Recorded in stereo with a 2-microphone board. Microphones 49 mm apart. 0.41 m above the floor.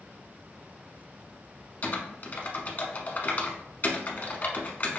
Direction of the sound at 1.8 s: 40° left (ahead or behind).